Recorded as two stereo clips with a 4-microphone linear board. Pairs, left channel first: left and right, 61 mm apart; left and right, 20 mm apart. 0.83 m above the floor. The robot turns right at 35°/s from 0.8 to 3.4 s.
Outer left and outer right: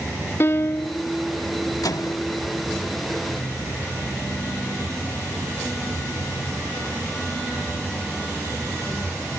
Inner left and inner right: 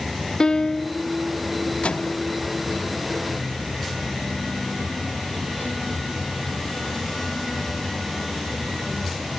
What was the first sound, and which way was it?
A piano, 40° left (ahead or behind).